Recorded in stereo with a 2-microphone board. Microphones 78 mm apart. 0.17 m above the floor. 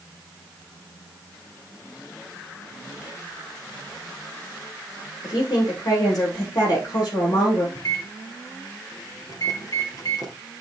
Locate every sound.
5.2 s a woman speaking: 50° left (ahead or behind), 9.5 m
7.8 s a microwave: 50° left (ahead or behind), 3 m